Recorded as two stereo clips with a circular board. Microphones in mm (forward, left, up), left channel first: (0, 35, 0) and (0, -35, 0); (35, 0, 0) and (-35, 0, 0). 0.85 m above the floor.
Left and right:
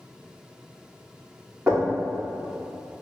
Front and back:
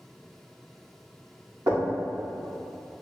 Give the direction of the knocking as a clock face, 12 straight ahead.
5 o'clock.